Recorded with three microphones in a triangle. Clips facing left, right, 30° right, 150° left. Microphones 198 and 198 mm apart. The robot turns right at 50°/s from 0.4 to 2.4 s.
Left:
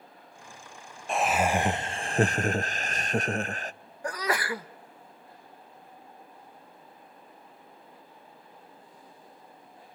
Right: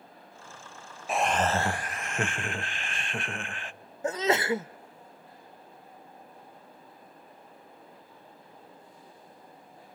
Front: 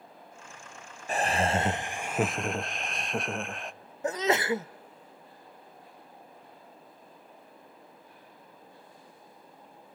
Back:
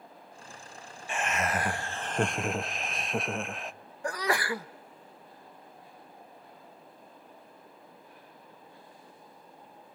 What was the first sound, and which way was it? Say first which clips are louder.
Laughter: left 1 dB, front 4 dB; 5° right.